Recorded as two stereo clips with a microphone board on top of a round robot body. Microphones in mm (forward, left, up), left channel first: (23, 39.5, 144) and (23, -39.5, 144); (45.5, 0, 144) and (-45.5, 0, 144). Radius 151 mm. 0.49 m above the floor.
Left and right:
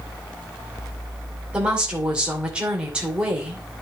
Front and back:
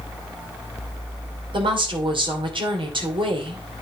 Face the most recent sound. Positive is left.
turn(degrees=-165)